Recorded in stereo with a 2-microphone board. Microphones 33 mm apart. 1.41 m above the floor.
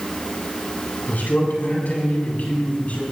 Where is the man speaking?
70° left (ahead or behind), 7 m; by 3.0 s 50° left (ahead or behind), 6 m.